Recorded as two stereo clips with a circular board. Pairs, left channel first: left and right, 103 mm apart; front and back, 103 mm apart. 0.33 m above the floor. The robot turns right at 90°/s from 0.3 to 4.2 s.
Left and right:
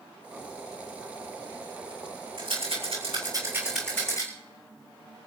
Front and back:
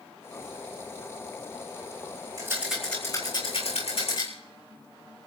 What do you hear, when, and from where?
2.4 s a rattle: 125° right, 7.5 m; by 4.3 s 40° left, 7.5 m